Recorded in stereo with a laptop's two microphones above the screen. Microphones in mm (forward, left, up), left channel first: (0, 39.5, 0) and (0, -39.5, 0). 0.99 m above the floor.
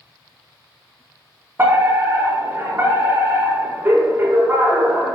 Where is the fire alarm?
25° right (ahead or behind), 5 m.